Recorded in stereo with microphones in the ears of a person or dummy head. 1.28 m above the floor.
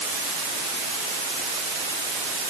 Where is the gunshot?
No gunshot in this recording.